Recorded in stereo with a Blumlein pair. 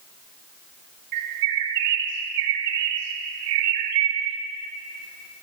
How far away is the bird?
About 1.1 m.